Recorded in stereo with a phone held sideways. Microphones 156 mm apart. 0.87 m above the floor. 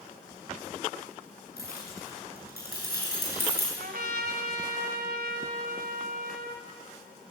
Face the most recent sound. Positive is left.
turn(degrees=-80)